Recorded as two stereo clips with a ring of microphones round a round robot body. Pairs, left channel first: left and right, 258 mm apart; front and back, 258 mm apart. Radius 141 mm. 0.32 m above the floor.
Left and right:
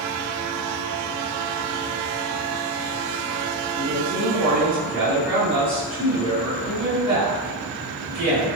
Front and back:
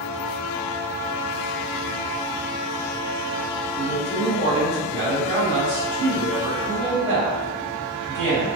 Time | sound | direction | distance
3.8 | a man speaking | 105° right | 1.9 m